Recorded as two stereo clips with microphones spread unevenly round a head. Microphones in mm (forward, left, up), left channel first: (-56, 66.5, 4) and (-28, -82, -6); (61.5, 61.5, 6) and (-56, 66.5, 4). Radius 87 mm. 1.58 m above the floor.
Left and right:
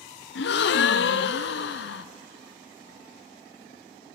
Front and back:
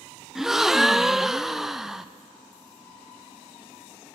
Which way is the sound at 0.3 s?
90° left.